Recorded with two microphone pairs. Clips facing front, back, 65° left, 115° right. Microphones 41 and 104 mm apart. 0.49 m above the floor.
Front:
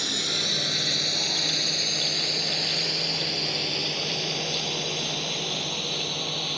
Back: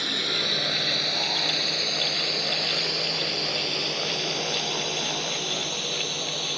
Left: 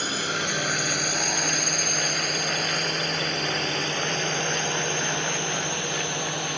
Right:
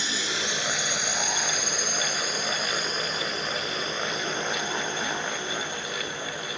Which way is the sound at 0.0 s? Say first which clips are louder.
Back 2 dB, left 3 dB; 105° left.